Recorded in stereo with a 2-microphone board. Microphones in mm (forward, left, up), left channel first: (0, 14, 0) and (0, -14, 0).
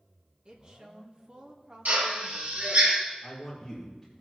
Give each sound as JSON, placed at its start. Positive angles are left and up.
{"t": 0.5, "sound": "a woman speaking", "side_deg": -40, "distance_m": 1.5}
{"t": 1.9, "sound": "a drill", "side_deg": -85, "distance_m": 4.0}
{"t": 3.2, "sound": "a man speaking", "side_deg": -10, "distance_m": 4.0}